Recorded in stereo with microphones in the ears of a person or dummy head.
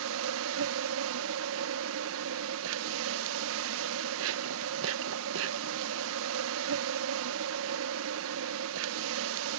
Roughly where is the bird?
No bird in this recording.